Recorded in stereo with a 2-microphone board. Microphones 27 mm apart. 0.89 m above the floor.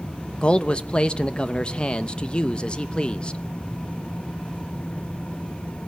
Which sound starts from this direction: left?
A man speaking, at 0.4 s.